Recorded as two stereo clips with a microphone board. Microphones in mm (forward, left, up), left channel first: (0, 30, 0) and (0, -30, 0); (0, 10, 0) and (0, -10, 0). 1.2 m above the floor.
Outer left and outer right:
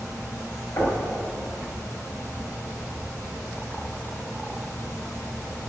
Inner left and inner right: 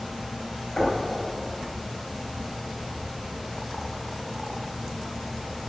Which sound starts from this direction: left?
Knocking, at 0.8 s.